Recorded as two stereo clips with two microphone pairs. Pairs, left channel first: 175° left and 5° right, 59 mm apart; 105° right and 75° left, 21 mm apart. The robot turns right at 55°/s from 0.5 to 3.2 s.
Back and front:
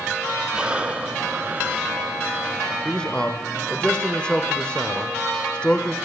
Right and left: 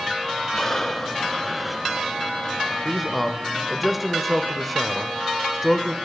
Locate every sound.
0.5 s breathing: 65° right, 0.5 m; by 1.9 s 10° left, 0.5 m
2.9 s a man speaking: 145° left, 0.8 m; by 6.0 s 165° left, 0.8 m